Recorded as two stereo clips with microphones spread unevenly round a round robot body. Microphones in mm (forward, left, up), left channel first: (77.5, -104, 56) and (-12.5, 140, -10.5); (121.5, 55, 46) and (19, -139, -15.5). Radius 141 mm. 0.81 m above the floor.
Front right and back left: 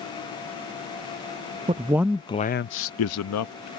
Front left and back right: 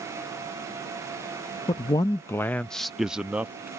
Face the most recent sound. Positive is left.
turn(degrees=-45)